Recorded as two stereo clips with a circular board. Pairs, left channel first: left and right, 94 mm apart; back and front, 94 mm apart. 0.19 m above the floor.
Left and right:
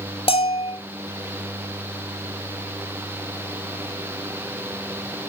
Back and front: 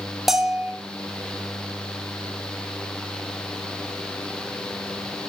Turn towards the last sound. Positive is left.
turn(degrees=90)